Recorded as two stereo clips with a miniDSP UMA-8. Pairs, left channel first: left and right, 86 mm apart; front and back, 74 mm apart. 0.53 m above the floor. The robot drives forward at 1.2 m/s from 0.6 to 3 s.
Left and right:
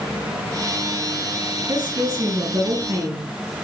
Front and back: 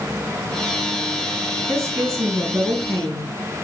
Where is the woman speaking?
125° right, 4 m; by 3.3 s 140° right, 5.5 m.